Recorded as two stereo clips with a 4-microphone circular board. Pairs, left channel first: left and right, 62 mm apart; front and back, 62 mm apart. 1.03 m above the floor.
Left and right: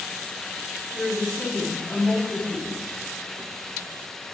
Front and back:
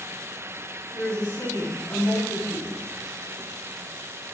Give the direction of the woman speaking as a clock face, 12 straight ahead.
12 o'clock.